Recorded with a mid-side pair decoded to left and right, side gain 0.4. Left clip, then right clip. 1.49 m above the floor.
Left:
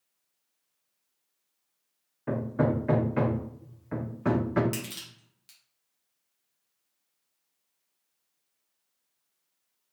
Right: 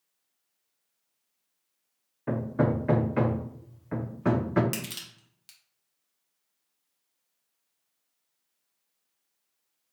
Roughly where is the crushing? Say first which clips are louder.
Right 1 dB; ahead right.